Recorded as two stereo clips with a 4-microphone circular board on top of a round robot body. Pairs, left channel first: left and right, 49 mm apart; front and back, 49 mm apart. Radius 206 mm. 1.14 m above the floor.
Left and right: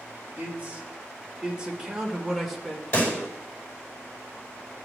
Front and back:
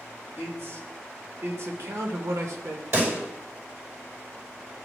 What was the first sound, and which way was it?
A man speaking, 150° right.